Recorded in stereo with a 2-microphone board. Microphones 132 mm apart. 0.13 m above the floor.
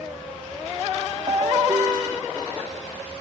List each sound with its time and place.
1.3 s a ringtone: 35° right (ahead or behind)